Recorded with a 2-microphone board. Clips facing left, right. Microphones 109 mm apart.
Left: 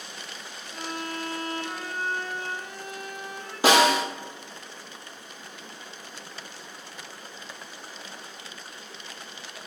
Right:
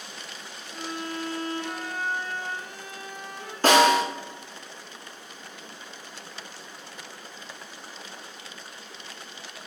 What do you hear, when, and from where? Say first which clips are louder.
0.7 s a violin: right 1 dB; 15° left (ahead or behind), 2 m
3.6 s a snare drum: right 1 dB; 10° left (ahead or behind), 1.6 m